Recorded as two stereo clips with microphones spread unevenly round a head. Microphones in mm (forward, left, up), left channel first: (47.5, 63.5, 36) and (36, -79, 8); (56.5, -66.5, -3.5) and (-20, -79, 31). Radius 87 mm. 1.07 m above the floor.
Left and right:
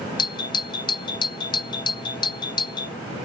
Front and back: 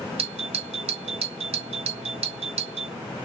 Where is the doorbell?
155° left.